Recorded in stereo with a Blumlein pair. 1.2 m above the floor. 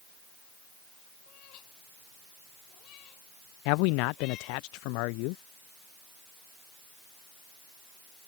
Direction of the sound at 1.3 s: 40° left.